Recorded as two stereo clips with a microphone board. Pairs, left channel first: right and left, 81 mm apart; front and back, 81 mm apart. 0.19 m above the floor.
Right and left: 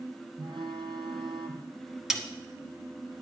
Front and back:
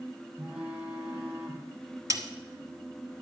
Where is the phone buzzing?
100° left, 2.0 m.